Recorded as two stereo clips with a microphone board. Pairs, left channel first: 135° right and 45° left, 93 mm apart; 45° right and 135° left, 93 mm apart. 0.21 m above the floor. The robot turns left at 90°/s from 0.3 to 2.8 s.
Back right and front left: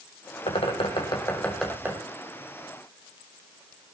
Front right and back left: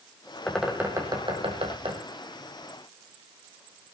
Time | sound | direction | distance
0.5 | a bird | 120° right | 3.5 m